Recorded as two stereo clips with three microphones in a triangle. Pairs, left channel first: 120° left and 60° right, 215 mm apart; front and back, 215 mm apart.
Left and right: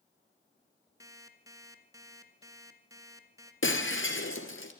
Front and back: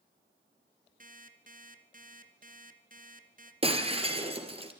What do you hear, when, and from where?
1.0 s an alarm clock: 135° right, 2 m
3.6 s breaking glass: 120° left, 3 m